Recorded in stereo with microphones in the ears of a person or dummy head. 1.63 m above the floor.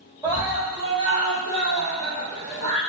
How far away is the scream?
About 1.4 m.